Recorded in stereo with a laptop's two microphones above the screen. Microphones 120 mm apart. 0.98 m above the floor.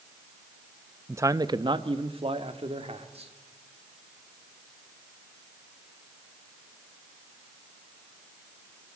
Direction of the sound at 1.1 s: 20° right (ahead or behind).